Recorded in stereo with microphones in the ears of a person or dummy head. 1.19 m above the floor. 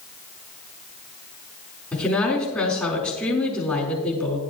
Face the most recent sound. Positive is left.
turn(degrees=5)  # may be behind; listen again after turning